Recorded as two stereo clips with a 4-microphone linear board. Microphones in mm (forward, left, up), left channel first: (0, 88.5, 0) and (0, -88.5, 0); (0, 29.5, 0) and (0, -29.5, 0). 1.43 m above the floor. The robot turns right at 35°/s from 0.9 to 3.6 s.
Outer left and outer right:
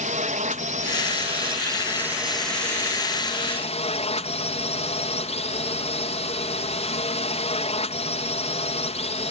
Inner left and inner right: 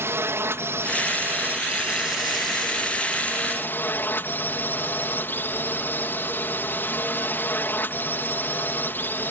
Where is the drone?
50° right; by 9.3 s 40° left.